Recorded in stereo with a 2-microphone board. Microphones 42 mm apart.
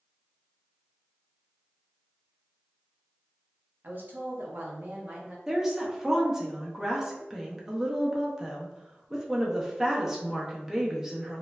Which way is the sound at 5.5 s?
10° right (ahead or behind).